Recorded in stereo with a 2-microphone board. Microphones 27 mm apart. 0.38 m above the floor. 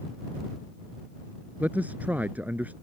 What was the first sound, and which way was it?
A man speaking, 80° right.